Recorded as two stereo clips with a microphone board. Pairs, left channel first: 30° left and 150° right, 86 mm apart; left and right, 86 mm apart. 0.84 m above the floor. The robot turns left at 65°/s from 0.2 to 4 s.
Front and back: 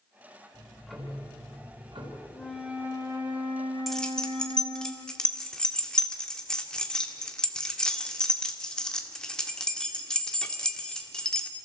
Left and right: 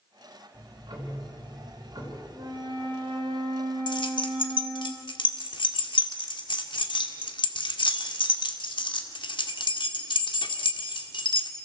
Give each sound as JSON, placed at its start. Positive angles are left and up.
{"t": 0.5, "sound": "ticking", "azimuth_deg": -35, "distance_m": 4.0}
{"t": 2.3, "sound": "a flute", "azimuth_deg": -45, "distance_m": 2.5}
{"t": 3.9, "sound": "keys jangling", "azimuth_deg": 120, "distance_m": 1.8}